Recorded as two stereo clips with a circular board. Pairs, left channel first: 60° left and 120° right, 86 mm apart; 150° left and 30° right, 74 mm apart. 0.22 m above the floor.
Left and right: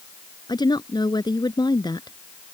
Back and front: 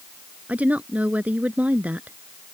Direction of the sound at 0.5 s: 40° left.